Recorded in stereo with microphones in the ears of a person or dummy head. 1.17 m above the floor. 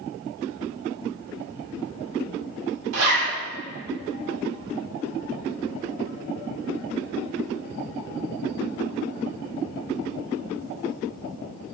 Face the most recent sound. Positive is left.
turn(degrees=-85)